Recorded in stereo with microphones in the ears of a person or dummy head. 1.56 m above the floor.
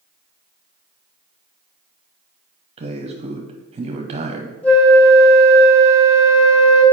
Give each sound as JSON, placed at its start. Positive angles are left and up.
{"t": 2.8, "sound": "a man speaking", "side_deg": -30, "distance_m": 0.7}
{"t": 4.6, "sound": "a flute", "side_deg": 10, "distance_m": 2.0}